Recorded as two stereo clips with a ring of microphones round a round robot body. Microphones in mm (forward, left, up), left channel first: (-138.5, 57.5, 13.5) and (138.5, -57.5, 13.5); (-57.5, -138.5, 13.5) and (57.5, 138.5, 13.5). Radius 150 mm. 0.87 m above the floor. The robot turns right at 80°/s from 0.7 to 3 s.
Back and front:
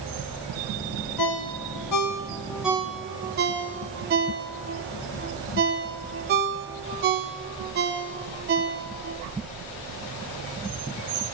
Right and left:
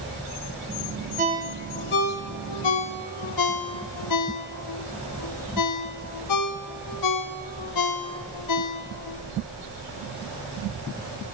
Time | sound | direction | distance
1.2 | a ringtone | 130° left | 0.9 m